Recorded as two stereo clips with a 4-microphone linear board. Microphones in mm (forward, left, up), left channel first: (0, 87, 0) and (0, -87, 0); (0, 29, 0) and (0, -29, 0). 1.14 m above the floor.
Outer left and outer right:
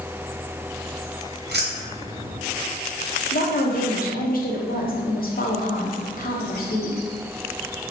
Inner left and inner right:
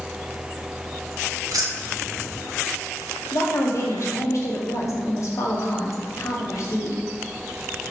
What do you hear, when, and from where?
1.5 s keys jangling: 75° right (ahead or behind), 0.7 m
3.3 s a woman speaking: 55° left (ahead or behind), 0.7 m